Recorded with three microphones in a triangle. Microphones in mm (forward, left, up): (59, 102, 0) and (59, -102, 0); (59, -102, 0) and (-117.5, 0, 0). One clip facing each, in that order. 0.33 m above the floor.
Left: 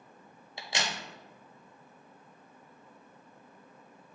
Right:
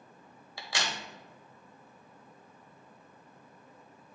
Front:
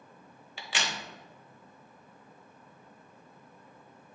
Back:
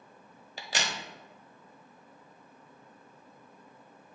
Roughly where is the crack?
Behind left.